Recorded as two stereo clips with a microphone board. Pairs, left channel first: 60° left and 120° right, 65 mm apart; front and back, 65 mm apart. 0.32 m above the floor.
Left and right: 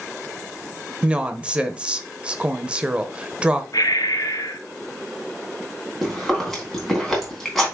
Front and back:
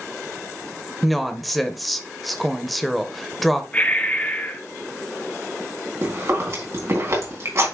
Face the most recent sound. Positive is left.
turn(degrees=145)